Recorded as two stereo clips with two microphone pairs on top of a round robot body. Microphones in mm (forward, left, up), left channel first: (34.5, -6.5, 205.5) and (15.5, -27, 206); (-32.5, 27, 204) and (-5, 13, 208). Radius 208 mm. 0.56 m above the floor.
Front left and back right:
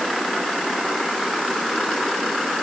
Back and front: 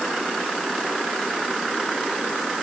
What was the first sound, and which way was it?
Only background noise.